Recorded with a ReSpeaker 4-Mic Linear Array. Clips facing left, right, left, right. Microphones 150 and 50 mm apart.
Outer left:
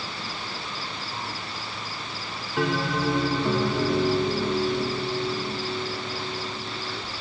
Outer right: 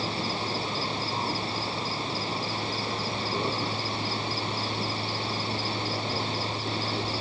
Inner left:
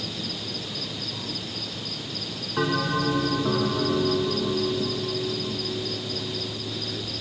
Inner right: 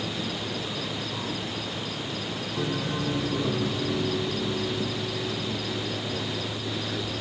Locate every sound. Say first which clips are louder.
0.0 s an insect: outer right 5 dB, inner right 3 dB; 25° right (ahead or behind)
2.6 s a bell: outer left 7 dB, inner left 6 dB; 75° left (ahead or behind)